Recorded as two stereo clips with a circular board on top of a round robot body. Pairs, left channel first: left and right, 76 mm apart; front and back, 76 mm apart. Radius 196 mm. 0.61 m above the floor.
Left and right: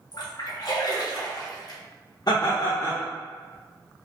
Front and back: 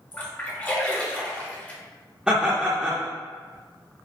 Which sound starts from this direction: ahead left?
A splash, at 0.1 s.